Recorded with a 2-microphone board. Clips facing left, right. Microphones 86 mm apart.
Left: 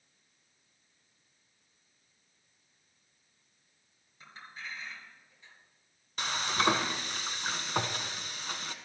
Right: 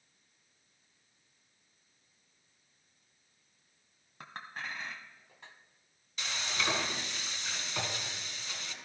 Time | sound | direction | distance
4.2 | a clink | 65° right (ahead or behind) | 1.5 m
6.2 | frying | 50° left (ahead or behind) | 1.2 m